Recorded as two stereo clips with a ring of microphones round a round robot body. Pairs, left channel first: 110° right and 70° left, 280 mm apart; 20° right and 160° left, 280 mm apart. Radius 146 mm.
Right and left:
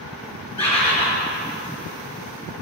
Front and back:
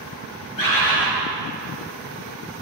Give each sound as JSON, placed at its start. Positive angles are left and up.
{"t": 0.6, "sound": "a bird", "azimuth_deg": -45, "distance_m": 4.5}